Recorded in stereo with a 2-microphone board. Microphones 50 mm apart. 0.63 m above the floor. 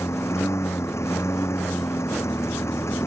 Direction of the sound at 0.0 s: 70° left (ahead or behind).